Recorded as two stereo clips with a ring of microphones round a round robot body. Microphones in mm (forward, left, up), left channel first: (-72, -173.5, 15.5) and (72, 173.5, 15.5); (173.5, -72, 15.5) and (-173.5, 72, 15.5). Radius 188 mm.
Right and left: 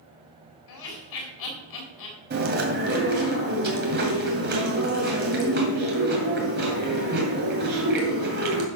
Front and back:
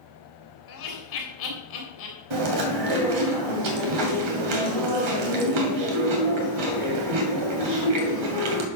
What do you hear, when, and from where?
0.7 s laughter: 75° right, 4.5 m
2.3 s chewing: 130° left, 2.5 m